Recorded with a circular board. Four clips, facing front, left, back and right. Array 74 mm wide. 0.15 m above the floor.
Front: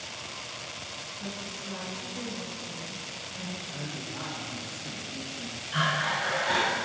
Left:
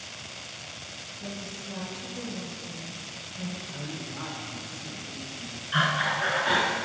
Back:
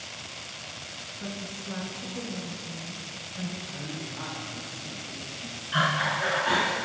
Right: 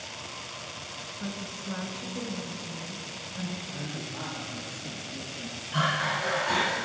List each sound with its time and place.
1.2 s a woman speaking: 110° right, 1.4 m
3.6 s a man speaking: 10° right, 3 m
5.7 s breathing: 115° left, 1.5 m